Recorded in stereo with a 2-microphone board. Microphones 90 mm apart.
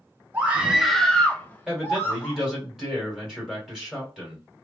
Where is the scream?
20° right (ahead or behind), 0.6 m; by 2.4 s 25° left (ahead or behind), 1.4 m.